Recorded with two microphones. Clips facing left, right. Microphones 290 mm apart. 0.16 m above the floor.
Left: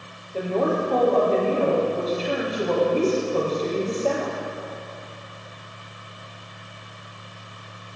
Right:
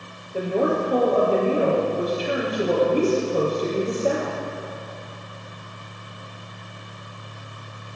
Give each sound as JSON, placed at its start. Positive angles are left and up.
{"t": 0.3, "sound": "a woman speaking", "side_deg": -15, "distance_m": 3.5}